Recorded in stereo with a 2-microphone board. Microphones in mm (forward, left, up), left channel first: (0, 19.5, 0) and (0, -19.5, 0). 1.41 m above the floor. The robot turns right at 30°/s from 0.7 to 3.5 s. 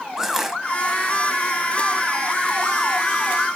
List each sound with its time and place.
0.2 s crushing: 10° right (ahead or behind), 1.5 m